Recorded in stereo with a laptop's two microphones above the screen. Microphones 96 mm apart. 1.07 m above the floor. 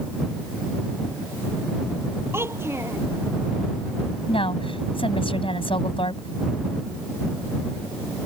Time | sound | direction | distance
2.3 | a child speaking | 25° right (ahead or behind) | ?
4.3 | a woman speaking | 70° left (ahead or behind) | ?